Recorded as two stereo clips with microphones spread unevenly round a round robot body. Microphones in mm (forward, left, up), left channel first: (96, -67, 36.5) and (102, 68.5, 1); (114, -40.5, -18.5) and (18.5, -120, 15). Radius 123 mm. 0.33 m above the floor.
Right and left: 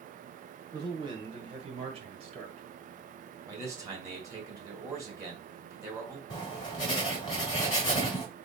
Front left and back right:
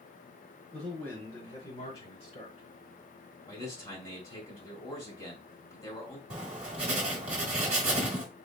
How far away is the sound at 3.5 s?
About 1.9 m.